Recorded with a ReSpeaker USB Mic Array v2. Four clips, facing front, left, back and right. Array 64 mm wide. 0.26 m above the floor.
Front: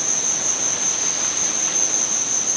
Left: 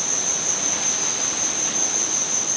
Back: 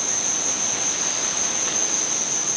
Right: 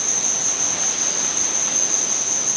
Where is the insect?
155° right, 6.5 m.